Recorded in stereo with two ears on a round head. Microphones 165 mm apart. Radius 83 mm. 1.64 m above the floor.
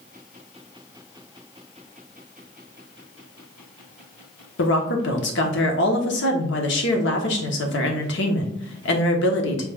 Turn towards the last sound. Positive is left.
turn(degrees=70)  # may be behind; listen again after turning